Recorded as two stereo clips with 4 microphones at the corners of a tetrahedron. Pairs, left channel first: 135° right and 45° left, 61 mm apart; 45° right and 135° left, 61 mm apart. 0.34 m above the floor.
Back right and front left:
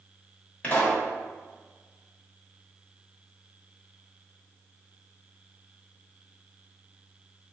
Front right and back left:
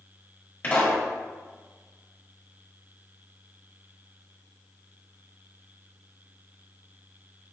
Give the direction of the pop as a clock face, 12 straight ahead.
3 o'clock.